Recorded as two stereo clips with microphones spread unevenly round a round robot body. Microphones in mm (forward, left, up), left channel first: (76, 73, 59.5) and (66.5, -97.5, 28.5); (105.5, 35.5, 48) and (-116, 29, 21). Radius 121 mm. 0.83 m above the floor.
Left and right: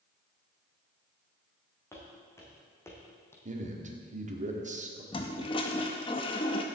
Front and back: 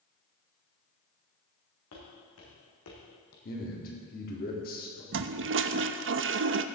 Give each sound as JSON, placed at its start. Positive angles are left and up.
{"t": 1.9, "sound": "footsteps", "azimuth_deg": 15, "distance_m": 4.5}
{"t": 3.5, "sound": "a man speaking", "azimuth_deg": -55, "distance_m": 2.0}
{"t": 5.1, "sound": "a toilet flushing", "azimuth_deg": 155, "distance_m": 0.5}